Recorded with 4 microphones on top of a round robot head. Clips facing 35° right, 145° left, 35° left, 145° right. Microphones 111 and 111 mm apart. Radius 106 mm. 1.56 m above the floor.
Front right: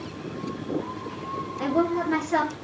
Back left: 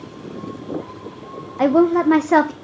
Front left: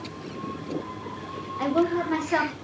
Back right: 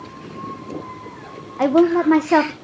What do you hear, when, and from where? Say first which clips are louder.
1.6 s a woman speaking: back left 10 dB, back right 9 dB; 175° left, 0.7 m